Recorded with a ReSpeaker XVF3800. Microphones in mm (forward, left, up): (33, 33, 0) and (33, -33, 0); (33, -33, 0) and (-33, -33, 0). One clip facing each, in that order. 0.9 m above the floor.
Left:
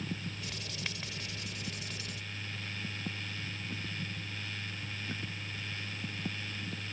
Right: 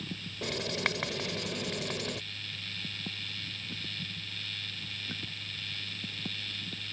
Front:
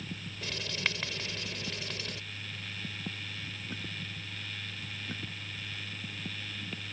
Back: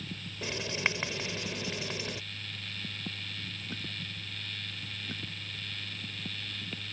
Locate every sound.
0.4 s writing: 115° right